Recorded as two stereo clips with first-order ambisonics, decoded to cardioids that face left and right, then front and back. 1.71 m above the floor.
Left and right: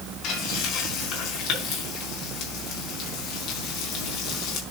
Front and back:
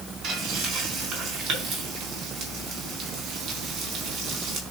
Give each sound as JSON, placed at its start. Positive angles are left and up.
{"t": 0.2, "sound": "frying", "azimuth_deg": 130, "distance_m": 4.5}